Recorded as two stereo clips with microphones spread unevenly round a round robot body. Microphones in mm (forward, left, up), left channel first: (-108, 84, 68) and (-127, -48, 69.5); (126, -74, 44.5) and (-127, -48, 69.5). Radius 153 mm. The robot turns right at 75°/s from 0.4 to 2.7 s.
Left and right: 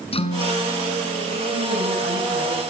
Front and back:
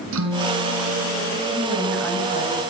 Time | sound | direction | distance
0.1 | a guitar | 125° left | 5.5 m
1.5 | a woman speaking | 130° right | 7.5 m